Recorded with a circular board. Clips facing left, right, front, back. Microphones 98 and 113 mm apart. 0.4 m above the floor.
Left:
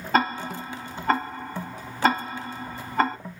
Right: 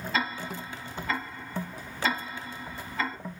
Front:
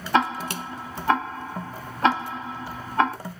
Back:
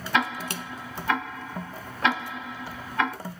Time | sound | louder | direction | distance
0.1 | ticking | left 9 dB, front 4 dB | 50° left | 0.8 m